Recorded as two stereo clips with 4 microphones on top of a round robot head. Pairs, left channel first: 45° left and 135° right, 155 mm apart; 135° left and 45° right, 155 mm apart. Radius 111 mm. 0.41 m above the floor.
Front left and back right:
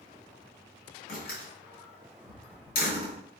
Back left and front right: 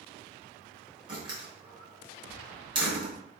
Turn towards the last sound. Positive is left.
turn(degrees=15)